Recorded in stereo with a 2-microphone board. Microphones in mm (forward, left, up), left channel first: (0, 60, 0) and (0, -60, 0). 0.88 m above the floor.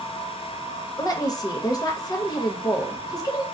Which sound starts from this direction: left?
A woman speaking, at 1.0 s.